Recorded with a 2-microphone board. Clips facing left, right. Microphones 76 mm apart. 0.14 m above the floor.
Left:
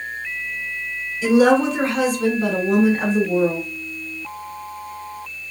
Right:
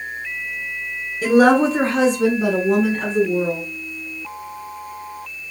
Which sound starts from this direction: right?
A woman speaking, at 1.2 s.